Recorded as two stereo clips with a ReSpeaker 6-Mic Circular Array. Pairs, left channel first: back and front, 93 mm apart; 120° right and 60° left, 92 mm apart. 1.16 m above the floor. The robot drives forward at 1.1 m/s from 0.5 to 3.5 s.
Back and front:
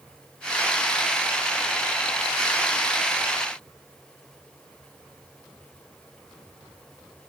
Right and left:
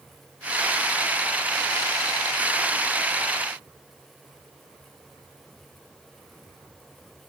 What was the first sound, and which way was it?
Only background noise.